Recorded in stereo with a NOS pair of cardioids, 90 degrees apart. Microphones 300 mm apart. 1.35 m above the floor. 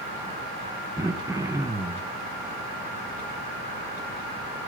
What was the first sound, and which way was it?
Throat clearing, 10° right.